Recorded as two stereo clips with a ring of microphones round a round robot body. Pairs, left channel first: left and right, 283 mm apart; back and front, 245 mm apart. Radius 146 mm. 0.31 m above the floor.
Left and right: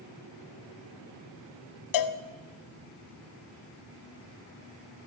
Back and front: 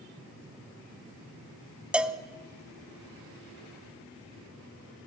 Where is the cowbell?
85° left, 1.1 m.